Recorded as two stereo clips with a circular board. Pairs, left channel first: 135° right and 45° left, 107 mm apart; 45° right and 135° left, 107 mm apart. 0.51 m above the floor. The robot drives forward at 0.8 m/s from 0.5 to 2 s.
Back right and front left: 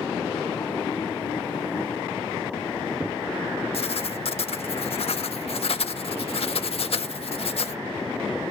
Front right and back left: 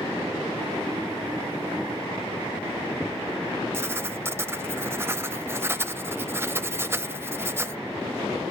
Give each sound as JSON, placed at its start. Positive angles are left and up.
{"t": 3.7, "sound": "writing", "azimuth_deg": -160, "distance_m": 0.6}